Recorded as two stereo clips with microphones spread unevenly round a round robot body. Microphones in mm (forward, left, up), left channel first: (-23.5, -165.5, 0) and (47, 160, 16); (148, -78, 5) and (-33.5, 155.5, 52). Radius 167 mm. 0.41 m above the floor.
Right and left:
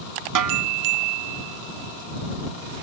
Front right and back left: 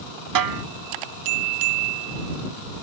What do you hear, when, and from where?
0.3 s a snare drum: 115° left